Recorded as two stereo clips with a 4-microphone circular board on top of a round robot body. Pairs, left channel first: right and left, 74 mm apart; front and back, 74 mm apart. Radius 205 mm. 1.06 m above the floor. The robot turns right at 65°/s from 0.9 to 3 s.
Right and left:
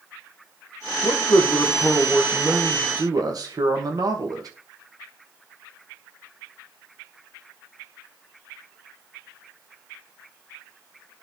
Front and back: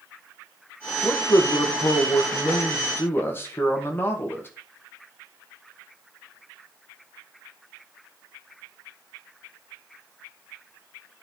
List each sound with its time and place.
1.0 s a man speaking: 70° right, 1.3 m; by 4.5 s 60° left, 1.3 m